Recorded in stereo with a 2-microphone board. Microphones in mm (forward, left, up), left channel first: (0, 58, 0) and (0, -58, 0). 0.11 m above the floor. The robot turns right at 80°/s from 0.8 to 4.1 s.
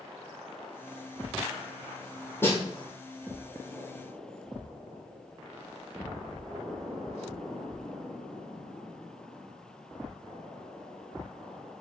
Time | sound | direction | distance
2.4 | a snare drum | 20° left (ahead or behind) | 2.5 m